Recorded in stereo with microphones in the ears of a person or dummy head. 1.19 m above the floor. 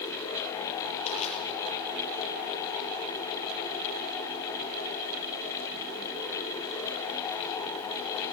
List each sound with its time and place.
1.1 s crushing: 40° left (ahead or behind), 7 m